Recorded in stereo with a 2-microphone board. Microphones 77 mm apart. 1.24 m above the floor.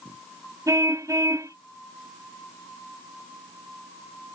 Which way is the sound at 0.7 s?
45° right (ahead or behind).